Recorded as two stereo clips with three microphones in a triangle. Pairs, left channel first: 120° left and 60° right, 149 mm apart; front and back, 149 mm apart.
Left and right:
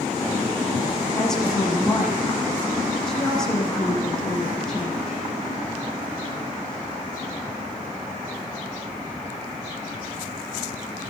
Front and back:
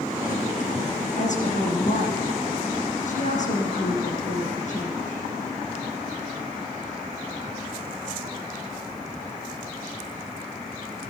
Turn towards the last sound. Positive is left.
turn(degrees=35)